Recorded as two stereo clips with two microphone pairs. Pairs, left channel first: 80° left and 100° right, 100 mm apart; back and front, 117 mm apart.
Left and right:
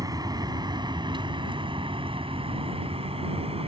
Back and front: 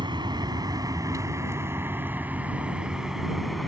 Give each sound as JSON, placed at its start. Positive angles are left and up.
{"t": 0.0, "sound": "a vehicle", "azimuth_deg": -50}